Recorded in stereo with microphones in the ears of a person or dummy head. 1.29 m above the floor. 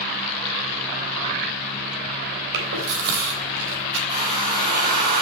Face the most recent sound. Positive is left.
turn(degrees=-25)  # may be behind; listen again after turning